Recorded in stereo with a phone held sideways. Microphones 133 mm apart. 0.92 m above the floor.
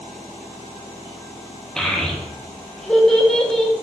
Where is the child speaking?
5° left (ahead or behind), 0.6 m.